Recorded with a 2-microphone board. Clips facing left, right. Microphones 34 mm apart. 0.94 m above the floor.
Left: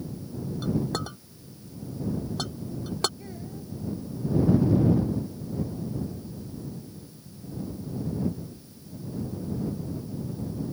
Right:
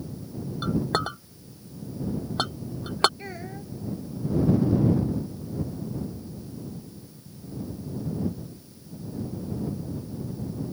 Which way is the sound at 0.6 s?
45° right (ahead or behind).